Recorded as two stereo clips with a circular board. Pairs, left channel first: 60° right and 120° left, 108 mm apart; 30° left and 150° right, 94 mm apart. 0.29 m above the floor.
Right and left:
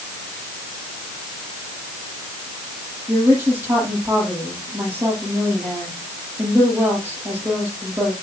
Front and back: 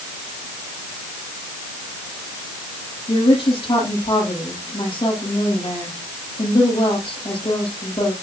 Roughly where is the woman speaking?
Ahead left.